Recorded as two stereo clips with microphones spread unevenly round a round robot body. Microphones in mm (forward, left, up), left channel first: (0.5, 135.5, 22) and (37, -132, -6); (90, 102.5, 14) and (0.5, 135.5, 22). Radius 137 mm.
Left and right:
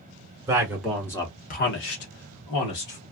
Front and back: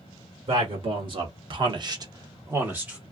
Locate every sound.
0.5 s a man speaking: 155° right, 1.2 m; by 3.0 s 80° left, 1.3 m